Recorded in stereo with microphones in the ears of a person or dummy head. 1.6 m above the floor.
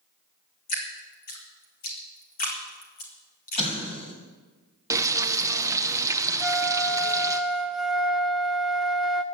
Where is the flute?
Centre (ahead or behind), 0.6 m.